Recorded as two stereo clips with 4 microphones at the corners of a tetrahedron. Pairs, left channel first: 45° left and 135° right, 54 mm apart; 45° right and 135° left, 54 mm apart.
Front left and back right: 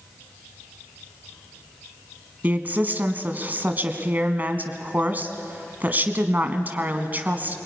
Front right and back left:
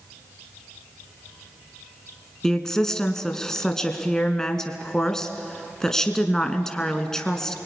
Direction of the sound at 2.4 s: 115° right.